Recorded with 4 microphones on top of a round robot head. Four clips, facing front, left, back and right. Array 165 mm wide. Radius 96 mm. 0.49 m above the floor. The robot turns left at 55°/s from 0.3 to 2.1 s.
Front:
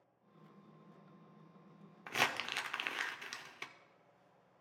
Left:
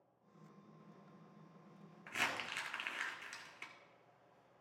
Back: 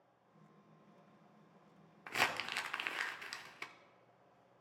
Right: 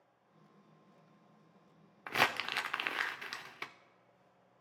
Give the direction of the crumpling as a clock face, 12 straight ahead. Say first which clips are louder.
Right 9 dB, front 1 dB; 2 o'clock.